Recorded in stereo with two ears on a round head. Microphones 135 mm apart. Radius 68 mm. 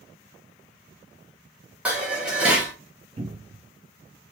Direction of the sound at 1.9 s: 5° right (ahead or behind).